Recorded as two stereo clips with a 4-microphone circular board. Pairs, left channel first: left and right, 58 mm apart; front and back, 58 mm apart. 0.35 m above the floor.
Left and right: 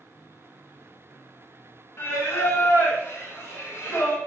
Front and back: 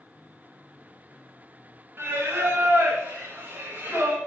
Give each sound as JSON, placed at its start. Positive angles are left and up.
{"t": 2.0, "sound": "singing", "azimuth_deg": 130, "distance_m": 0.9}